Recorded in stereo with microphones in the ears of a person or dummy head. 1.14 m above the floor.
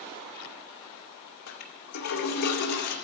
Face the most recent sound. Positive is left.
turn(degrees=60)  # may be behind; listen again after turning